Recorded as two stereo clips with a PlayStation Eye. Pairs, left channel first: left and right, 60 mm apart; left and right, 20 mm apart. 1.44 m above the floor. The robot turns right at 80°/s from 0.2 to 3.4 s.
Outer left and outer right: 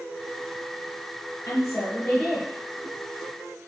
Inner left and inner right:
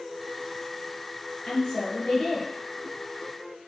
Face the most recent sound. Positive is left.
turn(degrees=-85)